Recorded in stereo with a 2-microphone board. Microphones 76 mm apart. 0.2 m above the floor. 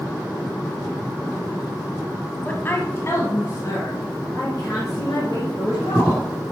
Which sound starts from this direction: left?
A woman speaking, at 2.5 s.